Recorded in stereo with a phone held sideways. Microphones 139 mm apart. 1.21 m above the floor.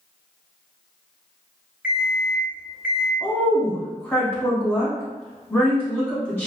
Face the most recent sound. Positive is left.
turn(degrees=15)  # may be behind; listen again after turning